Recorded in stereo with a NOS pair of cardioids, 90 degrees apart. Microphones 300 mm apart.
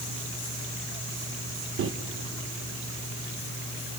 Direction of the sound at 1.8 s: 45° right.